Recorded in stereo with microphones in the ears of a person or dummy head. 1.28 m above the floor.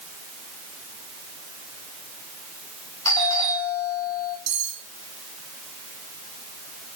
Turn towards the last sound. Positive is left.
turn(degrees=-35)  # may be behind; listen again after turning